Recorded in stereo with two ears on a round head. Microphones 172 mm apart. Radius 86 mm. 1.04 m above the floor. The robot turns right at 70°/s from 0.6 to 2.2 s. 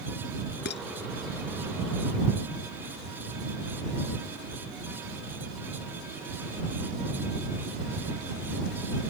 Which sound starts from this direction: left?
Dishes clattering, at 0.7 s.